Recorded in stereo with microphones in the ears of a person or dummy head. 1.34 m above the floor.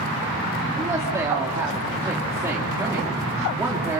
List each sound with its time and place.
0.8 s a woman speaking: 15° right (ahead or behind), 3 m